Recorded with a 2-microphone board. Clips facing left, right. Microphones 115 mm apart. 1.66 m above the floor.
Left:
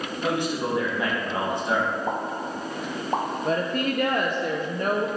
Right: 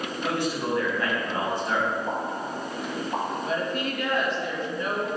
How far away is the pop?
About 1.4 m.